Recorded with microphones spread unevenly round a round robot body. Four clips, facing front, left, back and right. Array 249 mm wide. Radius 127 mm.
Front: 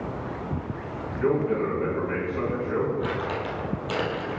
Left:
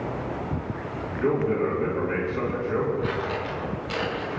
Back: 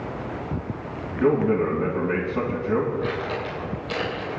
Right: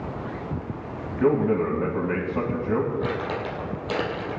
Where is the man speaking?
130° right, 3 m.